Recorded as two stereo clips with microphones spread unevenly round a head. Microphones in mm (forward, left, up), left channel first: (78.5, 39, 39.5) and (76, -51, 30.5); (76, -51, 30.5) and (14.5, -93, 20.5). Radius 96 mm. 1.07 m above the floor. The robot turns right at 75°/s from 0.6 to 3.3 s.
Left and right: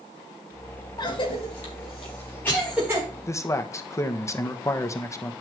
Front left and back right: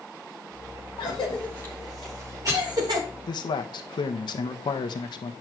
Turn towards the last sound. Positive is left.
turn(degrees=35)